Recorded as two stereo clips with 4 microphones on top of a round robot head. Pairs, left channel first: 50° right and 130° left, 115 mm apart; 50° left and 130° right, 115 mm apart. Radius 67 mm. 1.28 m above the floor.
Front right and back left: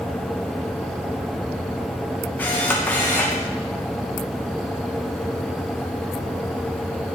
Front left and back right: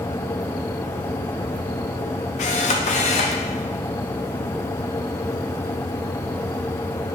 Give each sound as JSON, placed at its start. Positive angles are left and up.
{"t": 2.4, "sound": "a camera shutter", "azimuth_deg": 25, "distance_m": 1.2}